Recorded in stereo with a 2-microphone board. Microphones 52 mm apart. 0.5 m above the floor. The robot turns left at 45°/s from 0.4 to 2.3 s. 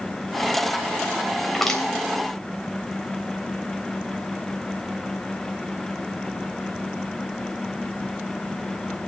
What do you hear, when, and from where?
1.4 s crushing: 5° right (ahead or behind), 3 m; by 1.8 s 15° left (ahead or behind), 3 m